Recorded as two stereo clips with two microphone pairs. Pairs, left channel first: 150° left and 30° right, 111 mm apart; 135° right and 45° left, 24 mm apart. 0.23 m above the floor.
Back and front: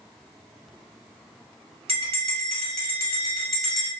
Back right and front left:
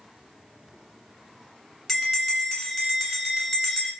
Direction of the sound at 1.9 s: 50° right.